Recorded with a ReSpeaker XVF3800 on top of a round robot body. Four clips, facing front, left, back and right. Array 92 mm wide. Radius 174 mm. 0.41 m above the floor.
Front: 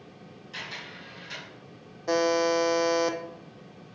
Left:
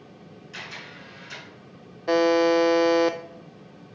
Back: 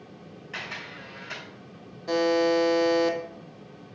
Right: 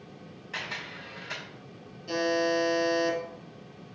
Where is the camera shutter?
140° right, 2.5 m.